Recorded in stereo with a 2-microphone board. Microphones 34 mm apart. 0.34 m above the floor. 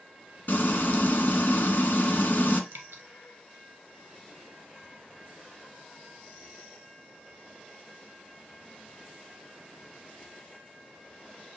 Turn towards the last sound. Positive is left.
turn(degrees=-75)  # may be behind; listen again after turning